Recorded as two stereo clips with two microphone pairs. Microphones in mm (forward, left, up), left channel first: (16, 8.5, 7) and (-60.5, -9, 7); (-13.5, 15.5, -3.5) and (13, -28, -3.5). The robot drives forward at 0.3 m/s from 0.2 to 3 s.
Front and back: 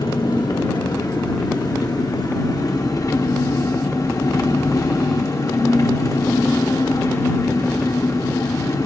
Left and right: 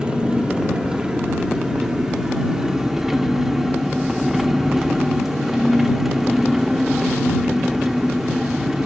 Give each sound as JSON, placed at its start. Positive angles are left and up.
{"t": 0.0, "sound": "an engine running", "azimuth_deg": 10, "distance_m": 1.7}